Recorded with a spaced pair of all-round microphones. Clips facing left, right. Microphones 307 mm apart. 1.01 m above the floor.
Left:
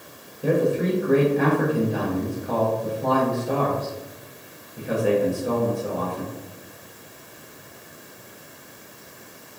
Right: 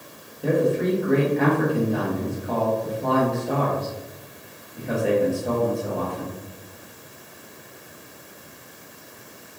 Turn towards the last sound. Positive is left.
turn(degrees=5)  # may be behind; listen again after turning